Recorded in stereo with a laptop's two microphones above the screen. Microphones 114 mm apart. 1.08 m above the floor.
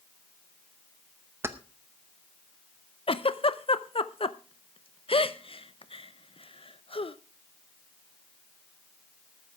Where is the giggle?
55° left (ahead or behind), 0.6 m.